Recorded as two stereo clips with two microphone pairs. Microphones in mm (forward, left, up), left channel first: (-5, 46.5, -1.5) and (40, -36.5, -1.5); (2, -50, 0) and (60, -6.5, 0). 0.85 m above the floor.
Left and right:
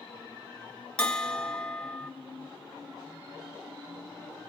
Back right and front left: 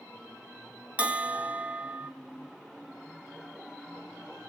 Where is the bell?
60° left, 0.8 m.